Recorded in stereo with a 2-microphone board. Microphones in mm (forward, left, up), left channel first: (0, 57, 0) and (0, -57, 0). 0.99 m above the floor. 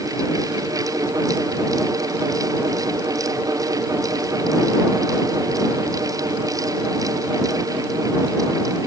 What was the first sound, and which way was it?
Only background noise.